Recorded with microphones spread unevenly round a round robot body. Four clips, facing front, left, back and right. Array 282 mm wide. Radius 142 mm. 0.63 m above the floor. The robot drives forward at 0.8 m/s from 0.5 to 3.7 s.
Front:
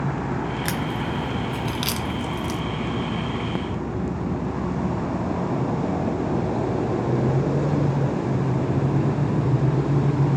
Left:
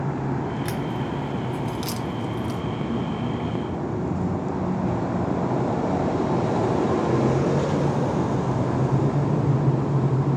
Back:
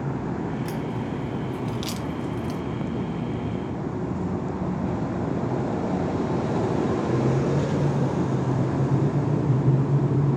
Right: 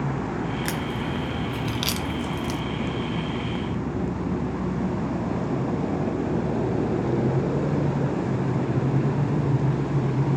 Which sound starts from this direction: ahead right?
A crack, at 0.7 s.